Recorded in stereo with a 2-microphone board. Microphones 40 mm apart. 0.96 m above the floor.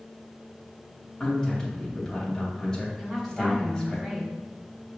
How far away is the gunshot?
No gunshot in this recording.